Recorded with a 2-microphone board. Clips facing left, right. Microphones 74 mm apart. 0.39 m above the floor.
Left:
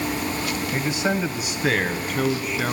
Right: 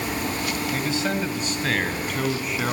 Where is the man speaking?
25° left (ahead or behind), 2.0 m; by 2.7 s centre (ahead or behind), 3.5 m.